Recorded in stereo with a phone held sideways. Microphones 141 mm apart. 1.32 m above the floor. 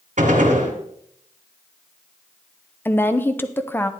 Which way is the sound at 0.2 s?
70° right (ahead or behind).